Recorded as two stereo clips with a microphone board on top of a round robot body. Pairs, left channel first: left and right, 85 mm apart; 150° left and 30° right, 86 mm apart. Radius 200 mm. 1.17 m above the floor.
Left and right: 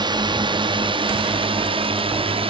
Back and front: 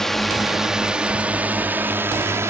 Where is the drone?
125° right; by 2.5 s 90° right.